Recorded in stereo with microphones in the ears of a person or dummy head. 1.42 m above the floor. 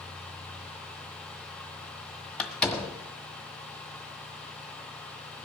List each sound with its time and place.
2.4 s a door slam: 5° left (ahead or behind), 1.5 m